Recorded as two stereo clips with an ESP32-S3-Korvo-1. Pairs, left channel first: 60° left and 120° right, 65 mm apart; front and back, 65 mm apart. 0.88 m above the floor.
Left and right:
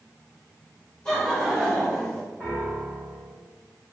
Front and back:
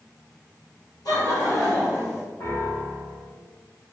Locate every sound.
1.1 s laughter: 15° right, 1.6 m
2.4 s a piano: 20° right, 1.6 m